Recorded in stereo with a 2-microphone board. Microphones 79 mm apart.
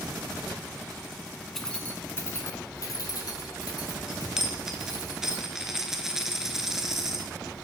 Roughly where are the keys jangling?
Centre.